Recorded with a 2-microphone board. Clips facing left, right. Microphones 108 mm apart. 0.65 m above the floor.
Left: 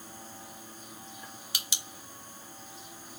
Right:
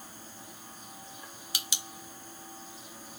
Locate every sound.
Only background noise.